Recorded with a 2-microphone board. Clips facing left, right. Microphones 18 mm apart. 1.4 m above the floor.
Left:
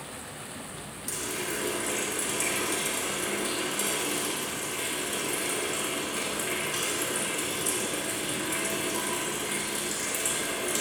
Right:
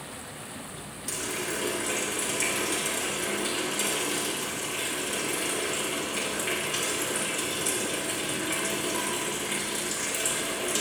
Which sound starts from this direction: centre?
A running tap, at 1.1 s.